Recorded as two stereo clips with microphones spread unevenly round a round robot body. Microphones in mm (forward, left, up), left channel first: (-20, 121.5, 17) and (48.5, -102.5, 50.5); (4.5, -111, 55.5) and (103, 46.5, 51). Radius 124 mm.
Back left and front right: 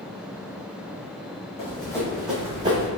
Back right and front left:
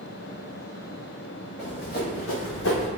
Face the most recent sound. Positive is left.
turn(degrees=-135)